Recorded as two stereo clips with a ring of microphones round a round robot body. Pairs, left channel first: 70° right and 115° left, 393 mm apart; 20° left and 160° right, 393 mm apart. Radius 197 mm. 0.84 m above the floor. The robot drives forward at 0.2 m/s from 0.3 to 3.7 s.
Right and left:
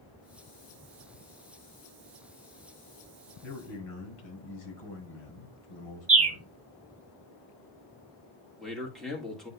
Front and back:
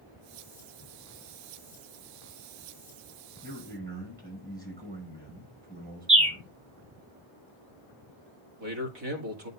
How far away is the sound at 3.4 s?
About 5 m.